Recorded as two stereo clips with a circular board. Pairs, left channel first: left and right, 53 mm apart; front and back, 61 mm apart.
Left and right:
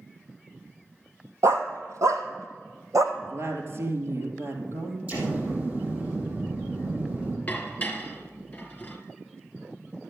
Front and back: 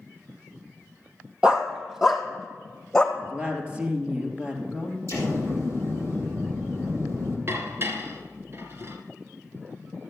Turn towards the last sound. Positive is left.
turn(degrees=145)